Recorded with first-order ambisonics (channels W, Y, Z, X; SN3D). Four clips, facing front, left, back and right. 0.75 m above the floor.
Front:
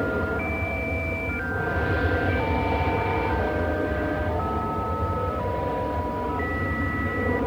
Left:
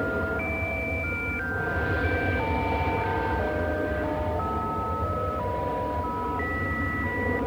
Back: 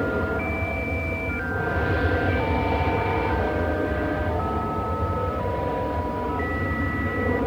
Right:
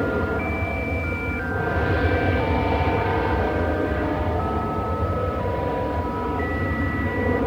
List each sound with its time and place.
0.0 s an aircraft: 100° right